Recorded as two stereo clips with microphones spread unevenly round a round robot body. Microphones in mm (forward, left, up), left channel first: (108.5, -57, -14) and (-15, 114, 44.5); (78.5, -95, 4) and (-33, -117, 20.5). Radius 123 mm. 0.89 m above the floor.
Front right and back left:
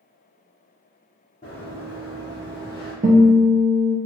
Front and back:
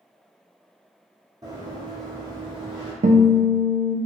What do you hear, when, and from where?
1.4 s running footsteps: 125° right, 1.8 m; by 2.9 s 165° right, 1.3 m
3.0 s a guitar: 170° right, 0.5 m